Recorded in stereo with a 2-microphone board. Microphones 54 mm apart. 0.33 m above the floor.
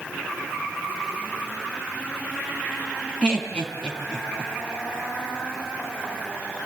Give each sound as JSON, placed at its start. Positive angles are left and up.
{"t": 3.2, "sound": "laughter", "side_deg": 15, "distance_m": 4.0}